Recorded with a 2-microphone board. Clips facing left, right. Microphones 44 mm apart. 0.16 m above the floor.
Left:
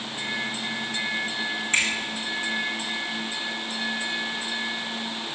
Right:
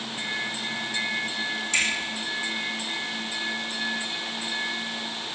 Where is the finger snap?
35° left (ahead or behind), 7 m.